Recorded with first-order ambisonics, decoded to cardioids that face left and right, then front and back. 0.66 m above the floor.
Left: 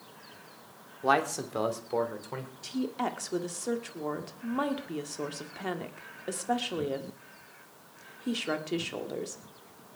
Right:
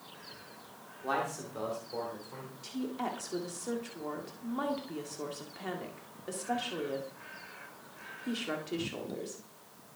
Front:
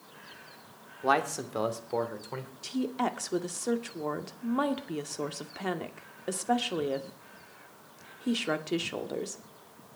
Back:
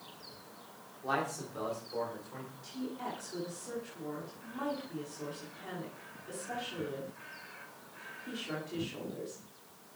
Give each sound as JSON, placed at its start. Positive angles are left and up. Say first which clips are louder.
{"t": 1.0, "sound": "a man speaking", "louder": "left 7 dB, front 7 dB", "azimuth_deg": 45, "distance_m": 2.0}
{"t": 2.6, "sound": "a woman speaking", "louder": "left 4 dB, front 10 dB", "azimuth_deg": 20, "distance_m": 1.8}